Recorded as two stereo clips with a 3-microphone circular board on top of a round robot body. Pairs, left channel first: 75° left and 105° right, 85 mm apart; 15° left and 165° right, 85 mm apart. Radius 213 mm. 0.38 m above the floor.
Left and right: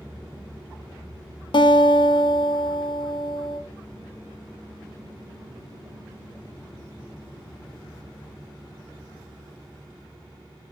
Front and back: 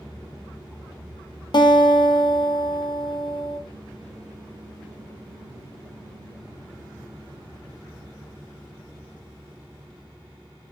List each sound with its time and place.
1.5 s a guitar: 45° left, 0.7 m